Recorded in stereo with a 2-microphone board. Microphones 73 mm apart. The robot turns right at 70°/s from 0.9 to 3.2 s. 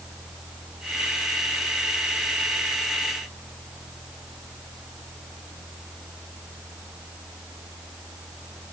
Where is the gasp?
No gasp in this recording.